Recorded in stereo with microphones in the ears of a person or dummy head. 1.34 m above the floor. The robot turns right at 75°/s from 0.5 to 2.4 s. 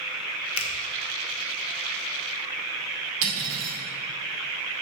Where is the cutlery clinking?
70° right (ahead or behind), 2 m.